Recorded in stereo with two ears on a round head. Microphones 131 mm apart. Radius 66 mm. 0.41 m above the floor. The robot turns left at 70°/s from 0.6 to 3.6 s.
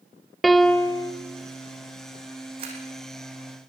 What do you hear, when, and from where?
0.4 s a piano: straight behind, 1.0 m; by 1.1 s 145° left, 1.0 m
2.6 s a camera shutter: 35° right (ahead or behind), 6 m; by 2.8 s 50° right (ahead or behind), 6 m